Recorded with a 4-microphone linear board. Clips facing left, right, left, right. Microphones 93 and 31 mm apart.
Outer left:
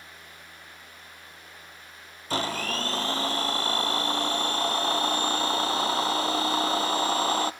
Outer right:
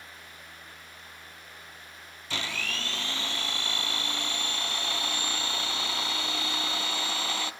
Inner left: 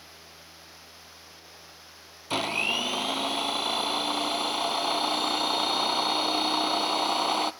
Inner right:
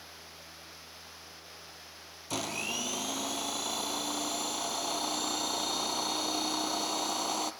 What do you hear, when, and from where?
2.3 s a blender: 40° left (ahead or behind), 0.8 m